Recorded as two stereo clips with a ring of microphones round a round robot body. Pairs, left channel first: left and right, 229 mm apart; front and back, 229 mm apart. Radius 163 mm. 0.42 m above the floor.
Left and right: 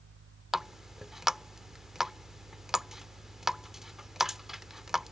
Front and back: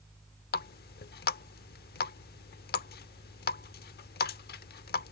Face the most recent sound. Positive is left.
turn(degrees=0)